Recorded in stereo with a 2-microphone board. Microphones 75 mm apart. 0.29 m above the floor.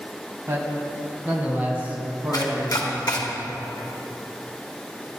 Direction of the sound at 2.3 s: 65° left (ahead or behind).